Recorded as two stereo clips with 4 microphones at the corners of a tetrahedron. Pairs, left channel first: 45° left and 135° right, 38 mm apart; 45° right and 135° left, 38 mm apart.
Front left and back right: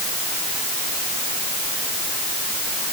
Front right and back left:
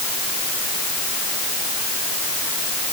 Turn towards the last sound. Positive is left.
No sound to turn to.